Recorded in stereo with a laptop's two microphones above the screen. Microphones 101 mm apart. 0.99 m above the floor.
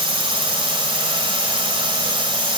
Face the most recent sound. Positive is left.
turn(degrees=-55)  # may be behind; listen again after turning